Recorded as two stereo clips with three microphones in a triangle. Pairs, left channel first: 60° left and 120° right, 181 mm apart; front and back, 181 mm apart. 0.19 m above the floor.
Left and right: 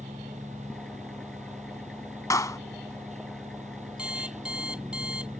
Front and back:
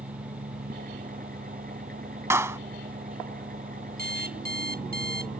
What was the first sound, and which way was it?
An engine running, 145° left.